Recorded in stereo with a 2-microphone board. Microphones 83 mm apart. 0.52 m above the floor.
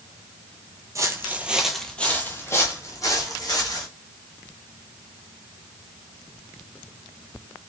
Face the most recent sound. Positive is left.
turn(degrees=50)  # may be behind; listen again after turning